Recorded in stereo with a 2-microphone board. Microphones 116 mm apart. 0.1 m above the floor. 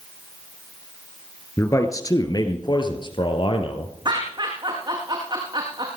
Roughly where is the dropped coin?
I don't hear a dropped coin.